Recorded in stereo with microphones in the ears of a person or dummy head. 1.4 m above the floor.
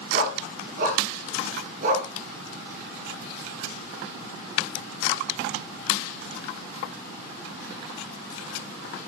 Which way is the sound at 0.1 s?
45° right (ahead or behind).